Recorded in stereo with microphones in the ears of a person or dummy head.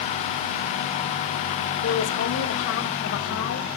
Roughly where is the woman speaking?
Left.